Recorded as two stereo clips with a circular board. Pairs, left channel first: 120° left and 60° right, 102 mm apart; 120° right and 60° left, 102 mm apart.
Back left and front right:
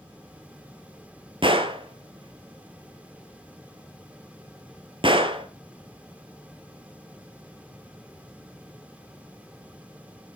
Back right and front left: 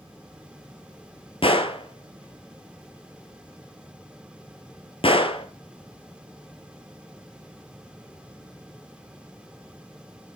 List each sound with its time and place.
1.4 s a gunshot: 95° right, 1.0 m